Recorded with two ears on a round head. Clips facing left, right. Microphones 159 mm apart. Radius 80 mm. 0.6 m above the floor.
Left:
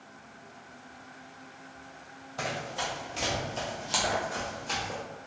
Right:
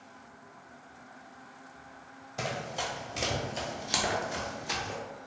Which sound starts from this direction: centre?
Running footsteps, at 2.4 s.